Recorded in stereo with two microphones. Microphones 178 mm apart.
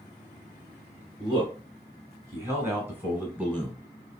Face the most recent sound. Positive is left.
turn(degrees=0)  # may be behind; listen again after turning